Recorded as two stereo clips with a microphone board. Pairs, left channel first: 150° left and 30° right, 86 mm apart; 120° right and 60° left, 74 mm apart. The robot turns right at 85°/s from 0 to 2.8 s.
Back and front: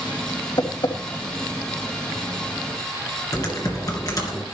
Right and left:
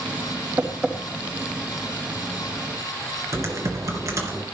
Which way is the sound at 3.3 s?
105° left.